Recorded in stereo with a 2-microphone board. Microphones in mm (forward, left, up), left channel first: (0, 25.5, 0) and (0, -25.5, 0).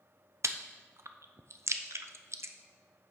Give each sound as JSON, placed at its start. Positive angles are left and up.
{"t": 0.4, "sound": "chewing", "side_deg": -65, "distance_m": 0.6}